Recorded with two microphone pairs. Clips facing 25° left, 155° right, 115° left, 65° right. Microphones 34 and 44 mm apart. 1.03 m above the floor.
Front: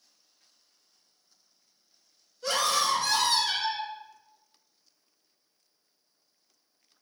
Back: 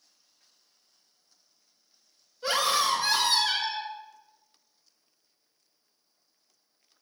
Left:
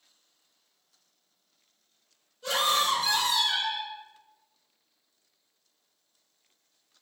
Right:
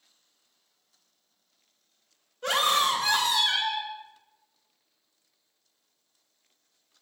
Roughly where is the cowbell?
I don't hear a cowbell.